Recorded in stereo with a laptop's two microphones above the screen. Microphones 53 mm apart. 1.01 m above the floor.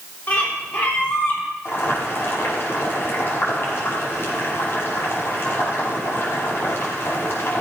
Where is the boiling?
55° left (ahead or behind), 5.5 m.